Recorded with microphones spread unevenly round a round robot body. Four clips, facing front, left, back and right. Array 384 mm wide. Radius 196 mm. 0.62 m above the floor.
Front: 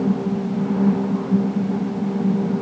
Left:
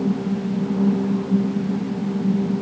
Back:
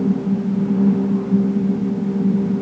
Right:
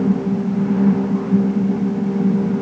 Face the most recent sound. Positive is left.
No sound to turn to.